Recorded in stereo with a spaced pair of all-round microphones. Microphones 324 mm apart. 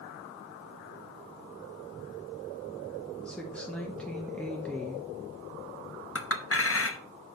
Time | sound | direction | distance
3.2 | a woman speaking | 5° left (ahead or behind) | 1.0 m
6.2 | a clink | 45° left (ahead or behind) | 0.8 m